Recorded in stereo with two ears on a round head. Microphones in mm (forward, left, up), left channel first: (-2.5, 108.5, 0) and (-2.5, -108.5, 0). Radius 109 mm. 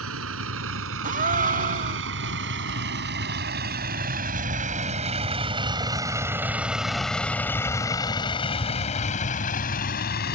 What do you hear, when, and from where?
0.0 s a vehicle: 65° right (ahead or behind); by 10.3 s 45° left (ahead or behind)
1.0 s a gasp: 35° right (ahead or behind)